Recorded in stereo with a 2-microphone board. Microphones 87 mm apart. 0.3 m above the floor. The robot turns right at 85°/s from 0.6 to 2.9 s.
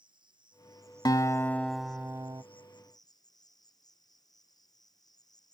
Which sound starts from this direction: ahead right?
An insect, at 0.0 s.